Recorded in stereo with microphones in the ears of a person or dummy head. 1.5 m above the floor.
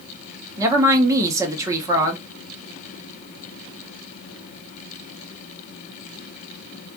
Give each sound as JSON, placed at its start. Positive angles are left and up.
{"t": 0.6, "sound": "a woman speaking", "side_deg": -10, "distance_m": 0.7}